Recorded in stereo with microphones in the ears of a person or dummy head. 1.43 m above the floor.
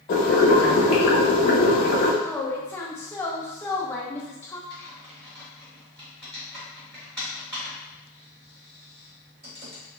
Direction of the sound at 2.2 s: 10° left (ahead or behind).